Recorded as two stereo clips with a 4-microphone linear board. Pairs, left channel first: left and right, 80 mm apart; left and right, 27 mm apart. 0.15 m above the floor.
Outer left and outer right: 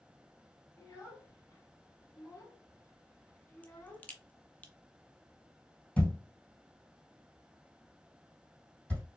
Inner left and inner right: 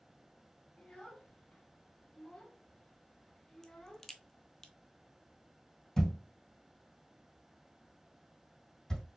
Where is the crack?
20° left (ahead or behind), 0.8 m.